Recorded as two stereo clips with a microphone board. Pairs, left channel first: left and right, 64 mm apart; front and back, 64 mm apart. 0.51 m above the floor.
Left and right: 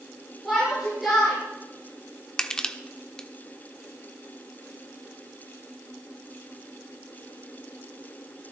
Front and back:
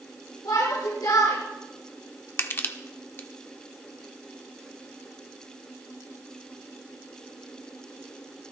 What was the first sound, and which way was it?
A shout, straight ahead.